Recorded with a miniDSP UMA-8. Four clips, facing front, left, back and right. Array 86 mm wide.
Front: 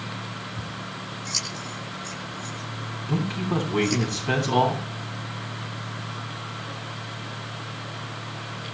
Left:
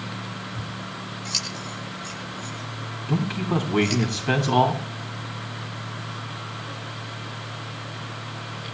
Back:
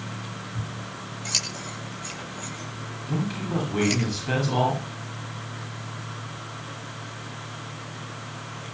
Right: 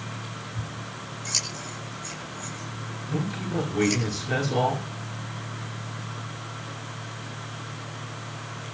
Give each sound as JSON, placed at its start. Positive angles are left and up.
{"t": 0.6, "sound": "scissors", "azimuth_deg": 160, "distance_m": 9.0}
{"t": 3.1, "sound": "a man speaking", "azimuth_deg": 75, "distance_m": 8.0}